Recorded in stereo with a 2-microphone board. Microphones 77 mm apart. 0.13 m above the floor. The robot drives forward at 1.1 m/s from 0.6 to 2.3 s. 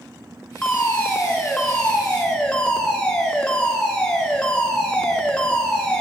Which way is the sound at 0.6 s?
15° left (ahead or behind).